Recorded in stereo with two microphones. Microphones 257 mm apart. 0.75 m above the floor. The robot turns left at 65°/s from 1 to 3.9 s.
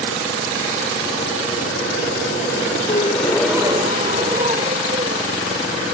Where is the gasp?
35° left; by 5.6 s 30° right.